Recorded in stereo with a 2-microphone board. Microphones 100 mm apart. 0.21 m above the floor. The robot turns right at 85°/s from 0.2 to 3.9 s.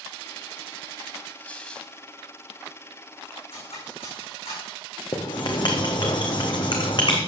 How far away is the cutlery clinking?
About 9.5 m.